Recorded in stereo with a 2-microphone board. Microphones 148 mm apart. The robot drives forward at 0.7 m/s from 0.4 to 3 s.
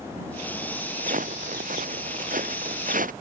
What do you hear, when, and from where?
1.0 s footsteps: 65° right (ahead or behind)